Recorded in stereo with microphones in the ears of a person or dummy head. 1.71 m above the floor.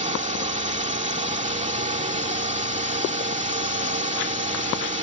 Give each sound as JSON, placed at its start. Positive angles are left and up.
{"t": 0.0, "sound": "a drone", "side_deg": -35}